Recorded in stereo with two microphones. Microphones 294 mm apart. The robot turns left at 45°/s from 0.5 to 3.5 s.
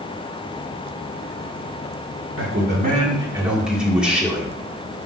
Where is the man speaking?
125° right, 1.8 m; by 4.6 s 175° right, 1.8 m.